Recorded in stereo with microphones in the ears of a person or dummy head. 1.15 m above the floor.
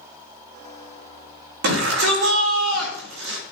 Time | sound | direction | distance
1.6 | a shout | 65° right (ahead or behind) | 3 m